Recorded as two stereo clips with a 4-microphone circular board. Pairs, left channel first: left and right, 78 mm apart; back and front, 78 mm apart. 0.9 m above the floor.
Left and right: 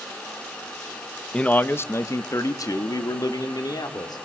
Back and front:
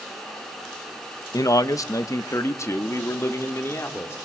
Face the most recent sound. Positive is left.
turn(degrees=120)